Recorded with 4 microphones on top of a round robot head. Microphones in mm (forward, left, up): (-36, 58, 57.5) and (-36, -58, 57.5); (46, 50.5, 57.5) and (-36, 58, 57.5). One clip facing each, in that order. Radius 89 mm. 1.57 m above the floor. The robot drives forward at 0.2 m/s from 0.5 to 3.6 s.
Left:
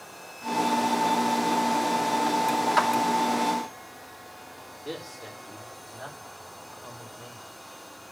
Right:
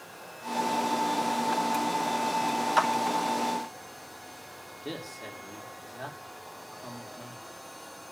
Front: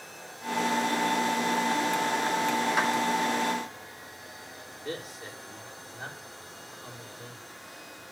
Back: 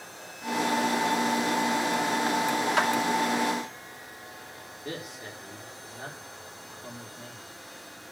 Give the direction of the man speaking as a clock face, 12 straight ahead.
4 o'clock.